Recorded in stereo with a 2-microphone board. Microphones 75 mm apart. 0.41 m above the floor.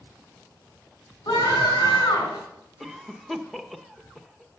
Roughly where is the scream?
Left.